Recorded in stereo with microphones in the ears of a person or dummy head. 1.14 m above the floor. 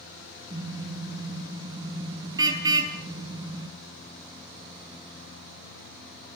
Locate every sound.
0.5 s a car horn: 20° right (ahead or behind), 5 m